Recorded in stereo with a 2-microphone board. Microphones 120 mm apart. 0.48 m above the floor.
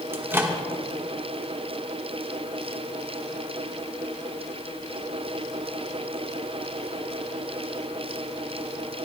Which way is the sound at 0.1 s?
20° right (ahead or behind).